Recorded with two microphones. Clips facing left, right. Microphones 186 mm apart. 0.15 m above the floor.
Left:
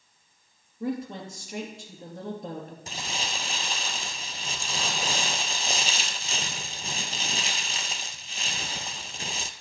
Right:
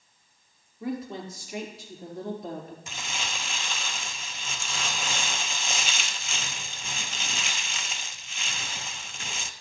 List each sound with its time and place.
0.8 s a woman speaking: 50° left (ahead or behind), 3 m
2.9 s crumpling: 40° left (ahead or behind), 0.5 m